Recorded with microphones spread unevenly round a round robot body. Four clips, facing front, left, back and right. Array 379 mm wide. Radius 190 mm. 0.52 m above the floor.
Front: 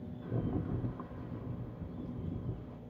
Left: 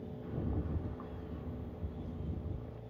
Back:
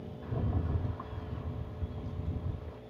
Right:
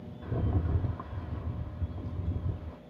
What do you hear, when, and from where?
0.2 s a rattle: 95° right, 1.1 m